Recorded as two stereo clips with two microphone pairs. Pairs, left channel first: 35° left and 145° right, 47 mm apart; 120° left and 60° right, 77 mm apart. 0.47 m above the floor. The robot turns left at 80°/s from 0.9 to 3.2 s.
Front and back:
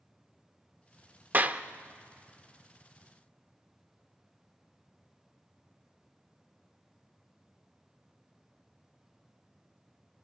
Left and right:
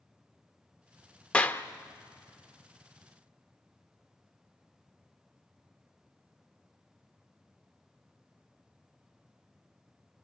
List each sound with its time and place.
1.3 s a clap: 170° right, 0.8 m; by 1.6 s 165° left, 0.8 m